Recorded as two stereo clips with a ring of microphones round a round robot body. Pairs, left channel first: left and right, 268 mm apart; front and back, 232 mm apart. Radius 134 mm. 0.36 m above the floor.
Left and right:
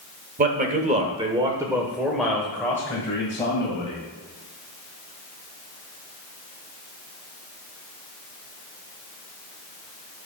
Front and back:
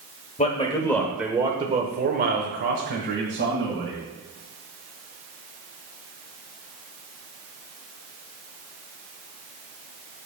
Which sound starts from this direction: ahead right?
A man speaking, at 0.4 s.